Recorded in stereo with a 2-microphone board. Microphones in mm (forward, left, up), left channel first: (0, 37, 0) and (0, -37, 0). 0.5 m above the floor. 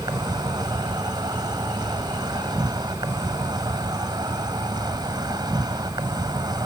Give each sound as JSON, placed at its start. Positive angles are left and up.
{"t": 0.0, "sound": "an insect", "side_deg": -65}